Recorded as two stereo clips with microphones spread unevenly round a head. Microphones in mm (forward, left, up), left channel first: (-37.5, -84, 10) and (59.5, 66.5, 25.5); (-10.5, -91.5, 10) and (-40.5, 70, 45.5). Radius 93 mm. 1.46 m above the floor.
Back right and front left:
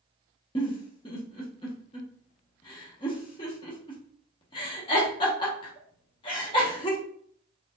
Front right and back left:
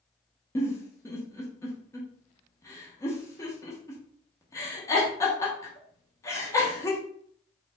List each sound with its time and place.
0.6 s a giggle: 160° right, 0.9 m